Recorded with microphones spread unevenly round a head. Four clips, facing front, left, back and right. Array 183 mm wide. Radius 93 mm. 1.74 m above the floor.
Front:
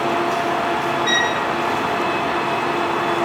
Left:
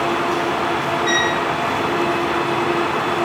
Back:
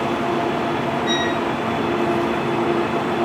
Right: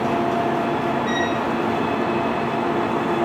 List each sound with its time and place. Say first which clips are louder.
1.1 s a violin: left 2 dB, even; 40° left, 8 m